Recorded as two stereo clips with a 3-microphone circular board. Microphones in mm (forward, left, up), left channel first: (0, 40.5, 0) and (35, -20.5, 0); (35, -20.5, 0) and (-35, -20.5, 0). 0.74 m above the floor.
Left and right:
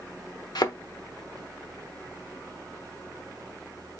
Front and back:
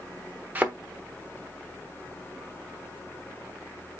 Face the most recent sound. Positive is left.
turn(degrees=110)